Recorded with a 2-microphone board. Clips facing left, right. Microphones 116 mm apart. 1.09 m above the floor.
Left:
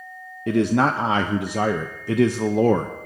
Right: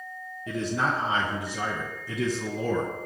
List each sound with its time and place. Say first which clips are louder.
0.5 s a man speaking: left 9 dB; 70° left (ahead or behind), 0.6 m